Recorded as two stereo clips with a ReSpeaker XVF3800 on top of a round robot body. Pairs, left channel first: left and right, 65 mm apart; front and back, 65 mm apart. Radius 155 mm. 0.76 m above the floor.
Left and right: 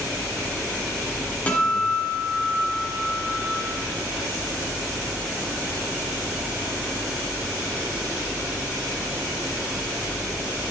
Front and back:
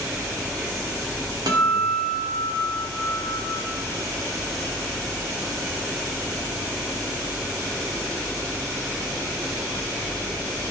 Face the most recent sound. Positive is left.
turn(degrees=160)